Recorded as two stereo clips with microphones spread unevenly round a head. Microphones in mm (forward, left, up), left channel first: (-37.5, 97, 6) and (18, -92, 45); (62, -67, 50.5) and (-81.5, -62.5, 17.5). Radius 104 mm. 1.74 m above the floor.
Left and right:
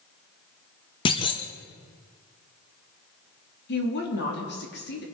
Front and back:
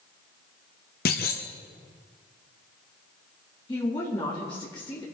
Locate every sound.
1.1 s a clunk: 35° left, 1.2 m
3.7 s a woman speaking: 65° left, 3.5 m